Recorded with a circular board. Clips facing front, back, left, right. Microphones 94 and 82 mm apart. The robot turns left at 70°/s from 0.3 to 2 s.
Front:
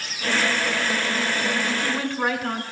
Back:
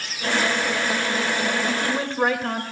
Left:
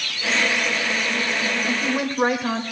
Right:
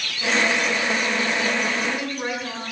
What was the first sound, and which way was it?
A woman speaking, 155° left.